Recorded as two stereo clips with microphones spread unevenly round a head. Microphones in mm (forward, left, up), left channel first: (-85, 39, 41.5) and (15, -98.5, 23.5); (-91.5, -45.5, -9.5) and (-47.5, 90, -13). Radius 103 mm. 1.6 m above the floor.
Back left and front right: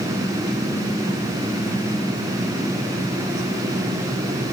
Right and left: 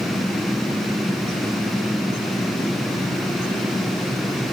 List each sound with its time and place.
Only background noise.